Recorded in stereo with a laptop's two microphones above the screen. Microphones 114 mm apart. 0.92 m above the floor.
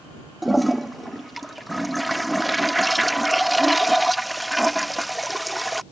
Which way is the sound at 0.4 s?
Centre (ahead or behind).